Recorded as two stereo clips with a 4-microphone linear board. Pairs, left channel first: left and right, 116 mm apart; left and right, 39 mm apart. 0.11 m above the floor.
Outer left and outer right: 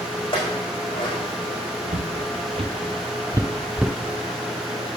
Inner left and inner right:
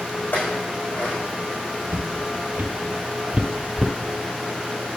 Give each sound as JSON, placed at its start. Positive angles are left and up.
{"t": 0.3, "sound": "a clink", "side_deg": 45, "distance_m": 4.0}
{"t": 1.9, "sound": "footsteps", "side_deg": -65, "distance_m": 1.2}